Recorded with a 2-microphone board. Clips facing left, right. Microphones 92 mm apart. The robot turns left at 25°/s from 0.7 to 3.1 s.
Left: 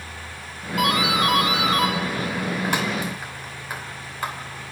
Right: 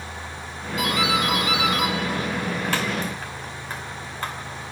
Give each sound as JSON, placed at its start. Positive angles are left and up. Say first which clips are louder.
{"t": 0.8, "sound": "a doorbell", "louder": "left 2 dB", "side_deg": 55, "distance_m": 2.5}